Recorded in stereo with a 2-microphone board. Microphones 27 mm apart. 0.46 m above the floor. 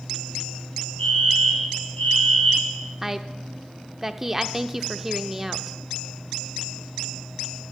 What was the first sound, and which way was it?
A fire alarm, 70° left (ahead or behind).